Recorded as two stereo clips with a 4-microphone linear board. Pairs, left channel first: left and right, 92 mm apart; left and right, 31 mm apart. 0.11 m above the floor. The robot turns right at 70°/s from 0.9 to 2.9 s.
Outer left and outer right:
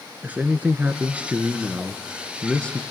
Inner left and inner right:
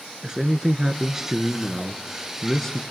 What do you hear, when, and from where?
0.2 s a man speaking: 20° right (ahead or behind), 1.2 m; by 2.8 s 15° left (ahead or behind), 1.2 m